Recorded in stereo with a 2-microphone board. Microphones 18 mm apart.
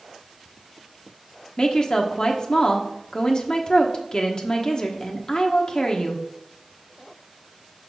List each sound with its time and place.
1.6 s a woman speaking: 40° left (ahead or behind), 1.1 m